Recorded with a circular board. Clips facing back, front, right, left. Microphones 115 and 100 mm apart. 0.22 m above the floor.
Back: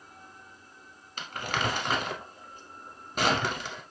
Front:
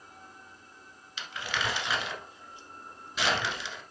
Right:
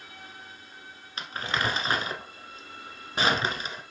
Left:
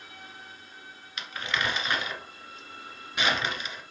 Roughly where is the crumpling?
Behind right.